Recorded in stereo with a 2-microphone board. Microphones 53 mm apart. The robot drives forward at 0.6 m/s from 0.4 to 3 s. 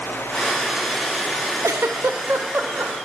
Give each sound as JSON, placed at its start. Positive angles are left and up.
{"t": 1.6, "sound": "a giggle", "side_deg": -75, "distance_m": 0.5}